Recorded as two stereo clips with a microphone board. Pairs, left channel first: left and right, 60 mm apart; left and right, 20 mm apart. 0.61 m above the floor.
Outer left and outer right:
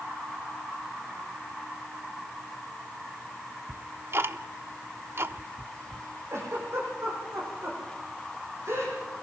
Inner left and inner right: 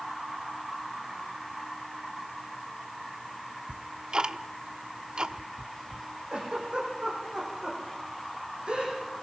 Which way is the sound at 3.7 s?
45° right (ahead or behind).